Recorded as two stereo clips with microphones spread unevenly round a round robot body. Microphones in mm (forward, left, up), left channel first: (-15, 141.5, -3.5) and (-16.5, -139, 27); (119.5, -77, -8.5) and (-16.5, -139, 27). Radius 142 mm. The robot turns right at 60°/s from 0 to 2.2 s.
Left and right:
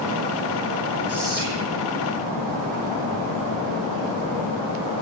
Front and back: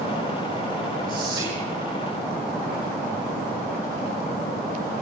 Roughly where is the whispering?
Behind.